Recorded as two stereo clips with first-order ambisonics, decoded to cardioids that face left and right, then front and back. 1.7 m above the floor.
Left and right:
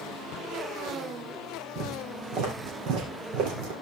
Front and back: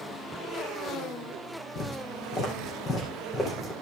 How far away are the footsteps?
About 3.5 m.